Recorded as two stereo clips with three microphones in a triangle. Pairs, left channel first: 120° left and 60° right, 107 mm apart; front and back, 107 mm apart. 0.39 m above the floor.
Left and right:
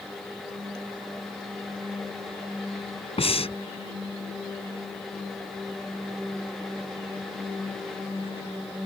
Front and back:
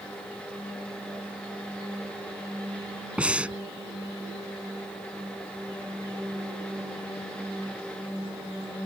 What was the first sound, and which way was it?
Breathing, 100° left.